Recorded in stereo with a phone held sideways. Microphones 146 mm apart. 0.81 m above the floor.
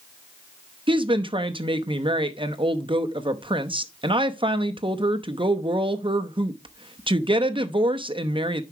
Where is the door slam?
No door slam in this recording.